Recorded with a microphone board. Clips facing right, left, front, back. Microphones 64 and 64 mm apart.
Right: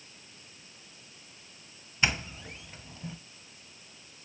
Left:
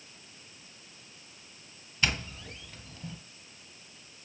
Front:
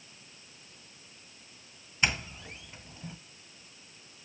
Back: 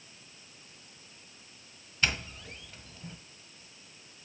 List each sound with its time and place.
2.0 s a doorbell: 50° right, 2 m